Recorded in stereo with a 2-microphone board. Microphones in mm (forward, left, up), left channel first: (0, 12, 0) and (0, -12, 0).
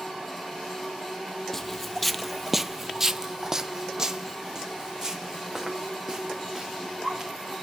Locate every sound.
1.5 s footsteps: 15° left (ahead or behind), 0.7 m; by 7.5 s 25° right (ahead or behind), 3 m